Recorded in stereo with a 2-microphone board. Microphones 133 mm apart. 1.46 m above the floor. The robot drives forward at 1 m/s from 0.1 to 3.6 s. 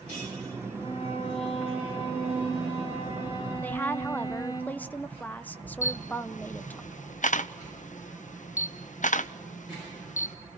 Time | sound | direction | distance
0.8 | a violin | 55° left (ahead or behind) | 6 m
3.6 | a woman speaking | 10° left (ahead or behind) | 0.7 m
5.8 | a camera shutter | 70° left (ahead or behind) | 0.8 m